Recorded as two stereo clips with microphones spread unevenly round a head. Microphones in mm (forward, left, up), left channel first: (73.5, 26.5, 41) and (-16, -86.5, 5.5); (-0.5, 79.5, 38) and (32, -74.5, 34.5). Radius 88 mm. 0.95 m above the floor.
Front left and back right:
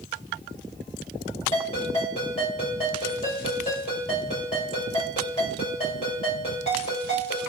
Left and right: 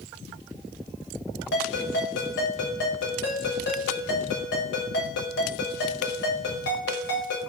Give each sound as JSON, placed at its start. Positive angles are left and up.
{"t": 1.5, "sound": "a ringtone", "azimuth_deg": 110, "distance_m": 1.1}